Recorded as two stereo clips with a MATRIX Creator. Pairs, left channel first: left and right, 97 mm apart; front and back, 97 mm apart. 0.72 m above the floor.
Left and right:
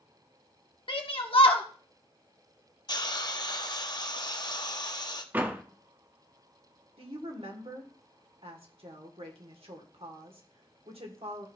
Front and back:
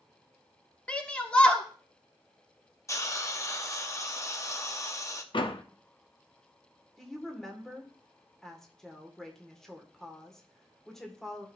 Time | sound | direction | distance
0.9 | a shout | 75° left | 1.5 m
2.9 | a hiss | 55° left | 0.8 m
5.3 | a door slam | 20° right | 0.8 m
7.0 | a woman speaking | 85° right | 1.8 m